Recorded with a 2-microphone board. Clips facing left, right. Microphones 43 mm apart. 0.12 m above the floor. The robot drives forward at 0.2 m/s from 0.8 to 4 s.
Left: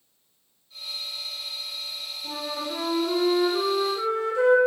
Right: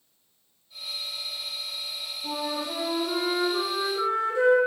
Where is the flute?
40° right (ahead or behind), 1.9 m; by 4.6 s 35° right (ahead or behind), 2 m.